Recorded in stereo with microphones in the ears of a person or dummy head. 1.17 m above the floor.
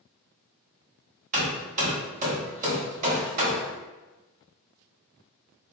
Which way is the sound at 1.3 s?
35° right (ahead or behind).